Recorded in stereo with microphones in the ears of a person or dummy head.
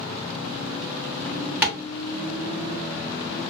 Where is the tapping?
5° right (ahead or behind), 0.7 m.